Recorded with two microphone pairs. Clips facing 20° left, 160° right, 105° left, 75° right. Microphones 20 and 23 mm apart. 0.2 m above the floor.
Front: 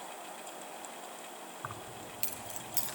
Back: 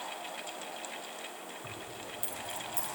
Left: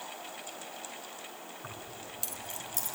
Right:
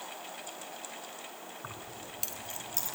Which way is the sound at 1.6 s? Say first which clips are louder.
Even, even; 5° right.